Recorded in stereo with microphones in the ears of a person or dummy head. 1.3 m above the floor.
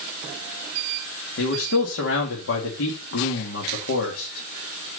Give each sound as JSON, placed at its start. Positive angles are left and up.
{"t": 1.4, "sound": "a man speaking", "side_deg": 75, "distance_m": 2.5}